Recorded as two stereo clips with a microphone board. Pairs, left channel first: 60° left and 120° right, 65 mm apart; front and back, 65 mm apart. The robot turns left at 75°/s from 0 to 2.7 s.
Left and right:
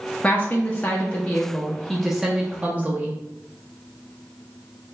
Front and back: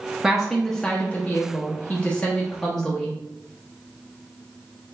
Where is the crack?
No crack in this recording.